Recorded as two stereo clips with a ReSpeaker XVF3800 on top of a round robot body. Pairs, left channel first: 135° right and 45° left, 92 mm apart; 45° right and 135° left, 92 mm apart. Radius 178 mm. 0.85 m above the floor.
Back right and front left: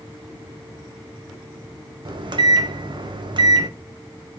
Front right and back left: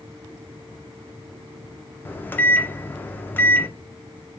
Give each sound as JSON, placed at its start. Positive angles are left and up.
{"t": 2.0, "sound": "a microwave", "azimuth_deg": 20, "distance_m": 0.6}